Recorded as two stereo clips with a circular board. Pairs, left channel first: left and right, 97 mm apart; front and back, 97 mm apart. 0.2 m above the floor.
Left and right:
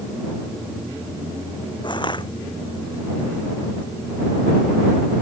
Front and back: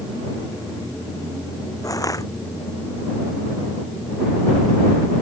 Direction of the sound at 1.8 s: 55° left.